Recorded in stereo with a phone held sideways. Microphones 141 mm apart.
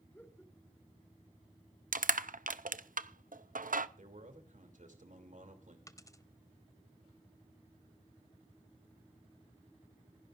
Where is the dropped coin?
25° left (ahead or behind), 0.8 m.